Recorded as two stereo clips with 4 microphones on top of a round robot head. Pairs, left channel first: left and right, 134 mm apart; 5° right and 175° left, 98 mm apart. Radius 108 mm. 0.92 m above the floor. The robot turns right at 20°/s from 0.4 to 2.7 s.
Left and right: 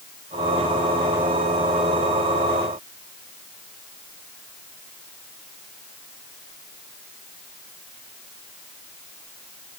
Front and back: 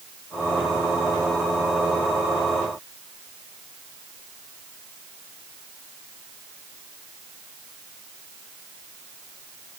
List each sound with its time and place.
Only background noise.